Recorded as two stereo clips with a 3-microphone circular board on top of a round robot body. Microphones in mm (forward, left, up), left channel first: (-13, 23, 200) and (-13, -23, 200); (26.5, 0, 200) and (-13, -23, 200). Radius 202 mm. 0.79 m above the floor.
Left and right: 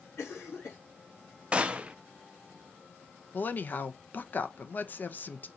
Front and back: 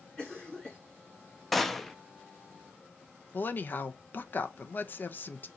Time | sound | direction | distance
0.2 | a cough | 110° left | 2 m
1.5 | a gunshot | 50° right | 0.8 m
3.3 | a woman speaking | 60° left | 0.8 m